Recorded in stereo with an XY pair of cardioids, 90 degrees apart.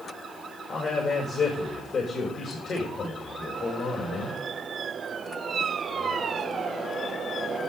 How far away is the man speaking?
About 5.5 m.